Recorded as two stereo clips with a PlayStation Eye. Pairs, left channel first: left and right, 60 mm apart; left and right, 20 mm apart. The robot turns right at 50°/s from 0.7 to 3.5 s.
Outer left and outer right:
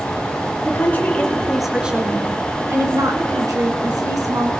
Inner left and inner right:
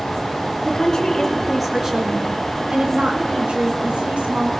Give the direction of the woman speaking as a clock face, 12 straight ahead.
7 o'clock.